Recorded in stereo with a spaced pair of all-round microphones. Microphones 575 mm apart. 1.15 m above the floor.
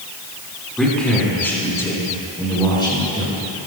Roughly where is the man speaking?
Centre.